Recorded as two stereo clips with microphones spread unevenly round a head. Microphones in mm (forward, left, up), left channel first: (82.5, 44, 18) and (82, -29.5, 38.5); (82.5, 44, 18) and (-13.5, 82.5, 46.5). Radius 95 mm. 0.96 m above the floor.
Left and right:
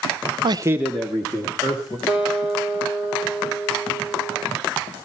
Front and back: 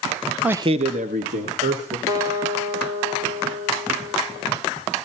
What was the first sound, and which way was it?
A man speaking, 105° right.